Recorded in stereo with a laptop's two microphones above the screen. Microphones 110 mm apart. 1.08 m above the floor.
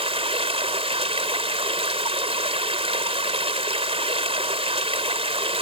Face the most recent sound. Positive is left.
turn(degrees=-70)  # may be behind; listen again after turning